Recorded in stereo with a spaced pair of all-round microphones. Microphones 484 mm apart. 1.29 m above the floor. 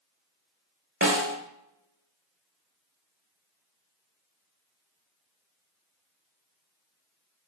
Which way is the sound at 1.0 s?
25° right (ahead or behind).